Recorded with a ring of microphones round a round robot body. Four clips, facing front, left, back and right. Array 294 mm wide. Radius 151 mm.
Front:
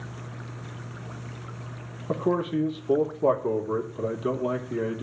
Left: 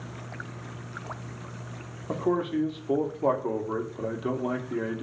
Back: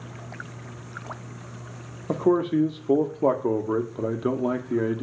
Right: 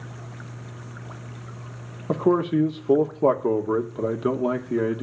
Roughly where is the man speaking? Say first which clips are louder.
Right 6 dB, back 4 dB; behind right.